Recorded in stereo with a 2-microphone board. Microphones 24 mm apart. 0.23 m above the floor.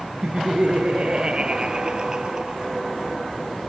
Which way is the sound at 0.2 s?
45° right (ahead or behind).